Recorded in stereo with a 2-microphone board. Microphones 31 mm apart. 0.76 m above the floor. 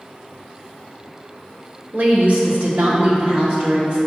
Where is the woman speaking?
50° right (ahead or behind), 1.4 m; by 4.0 s 25° right (ahead or behind), 3 m.